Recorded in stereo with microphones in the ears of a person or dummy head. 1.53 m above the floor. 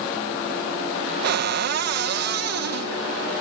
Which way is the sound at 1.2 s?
65° right (ahead or behind).